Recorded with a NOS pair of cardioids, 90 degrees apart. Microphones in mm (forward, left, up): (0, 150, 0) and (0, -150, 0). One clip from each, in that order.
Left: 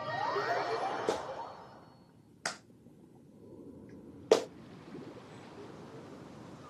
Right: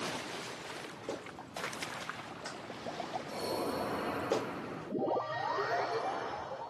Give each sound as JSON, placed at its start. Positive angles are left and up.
{"t": 1.1, "sound": "a clap", "azimuth_deg": 40, "distance_m": 0.5}